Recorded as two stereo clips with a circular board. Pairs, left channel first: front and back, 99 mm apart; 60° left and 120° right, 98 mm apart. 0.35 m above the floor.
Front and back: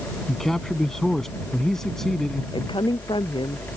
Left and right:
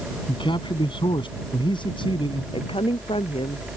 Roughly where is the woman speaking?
Ahead left.